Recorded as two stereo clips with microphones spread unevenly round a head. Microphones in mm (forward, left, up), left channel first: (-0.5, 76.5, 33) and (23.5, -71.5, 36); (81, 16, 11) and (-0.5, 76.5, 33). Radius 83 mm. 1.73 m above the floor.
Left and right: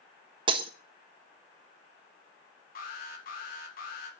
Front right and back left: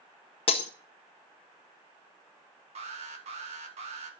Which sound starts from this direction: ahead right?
Breaking glass, at 0.5 s.